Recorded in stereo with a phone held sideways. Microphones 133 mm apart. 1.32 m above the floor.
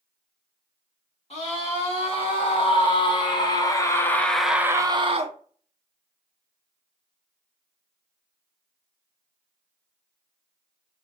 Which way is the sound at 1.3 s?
50° left (ahead or behind).